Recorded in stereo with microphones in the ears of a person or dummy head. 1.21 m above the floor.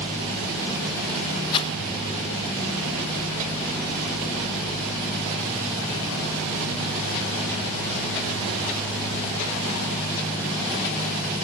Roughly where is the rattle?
Left.